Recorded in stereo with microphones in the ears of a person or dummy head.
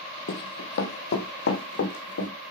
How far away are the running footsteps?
About 2 m.